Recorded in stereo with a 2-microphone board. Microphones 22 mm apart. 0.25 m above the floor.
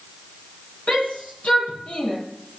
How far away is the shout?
About 7.5 m.